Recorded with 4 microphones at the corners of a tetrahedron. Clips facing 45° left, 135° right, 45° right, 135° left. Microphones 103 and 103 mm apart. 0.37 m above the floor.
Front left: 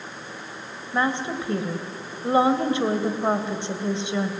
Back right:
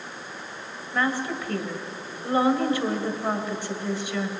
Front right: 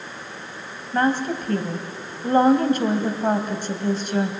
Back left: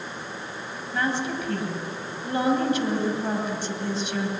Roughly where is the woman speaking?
Ahead.